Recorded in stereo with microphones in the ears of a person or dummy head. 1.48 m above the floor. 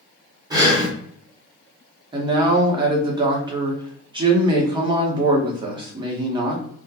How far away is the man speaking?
About 0.7 m.